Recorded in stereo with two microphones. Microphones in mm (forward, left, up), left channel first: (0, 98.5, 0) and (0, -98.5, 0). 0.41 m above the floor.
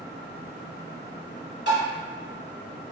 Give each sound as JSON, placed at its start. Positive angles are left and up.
{"t": 1.7, "sound": "tapping", "side_deg": 60, "distance_m": 1.4}